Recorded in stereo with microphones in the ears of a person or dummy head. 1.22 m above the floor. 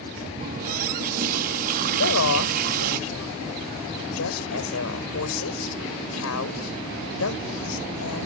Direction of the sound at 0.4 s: 50° right (ahead or behind).